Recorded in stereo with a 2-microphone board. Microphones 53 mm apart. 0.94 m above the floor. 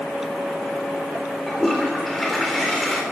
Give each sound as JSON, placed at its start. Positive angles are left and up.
{"t": 1.5, "sound": "a toilet flushing", "side_deg": 5, "distance_m": 3.5}